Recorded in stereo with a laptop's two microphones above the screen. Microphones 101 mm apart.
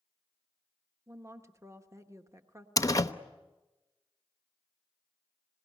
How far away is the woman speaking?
About 1.0 m.